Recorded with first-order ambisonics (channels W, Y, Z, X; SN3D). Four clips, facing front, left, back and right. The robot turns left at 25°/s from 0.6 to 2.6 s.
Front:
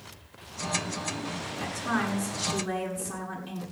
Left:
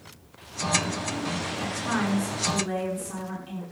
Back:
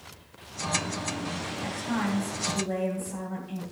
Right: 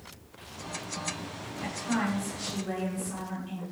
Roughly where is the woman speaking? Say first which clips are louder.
Left 1 dB, front 2 dB; ahead left.